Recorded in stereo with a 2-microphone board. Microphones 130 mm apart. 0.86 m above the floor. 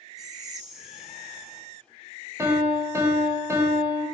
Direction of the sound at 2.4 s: 20° right (ahead or behind).